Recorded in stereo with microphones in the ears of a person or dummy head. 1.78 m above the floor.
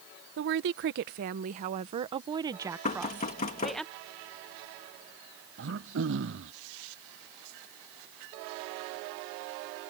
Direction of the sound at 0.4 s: 60° right (ahead or behind).